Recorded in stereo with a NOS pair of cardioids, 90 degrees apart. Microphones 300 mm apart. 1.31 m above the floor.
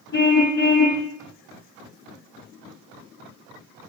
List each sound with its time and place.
0.1 s a car horn: 35° left, 8 m